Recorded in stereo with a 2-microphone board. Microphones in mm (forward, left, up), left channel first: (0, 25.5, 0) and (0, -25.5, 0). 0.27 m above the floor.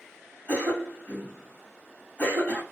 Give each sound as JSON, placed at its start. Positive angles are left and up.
{"t": 0.5, "sound": "a cough", "side_deg": 35, "distance_m": 2.0}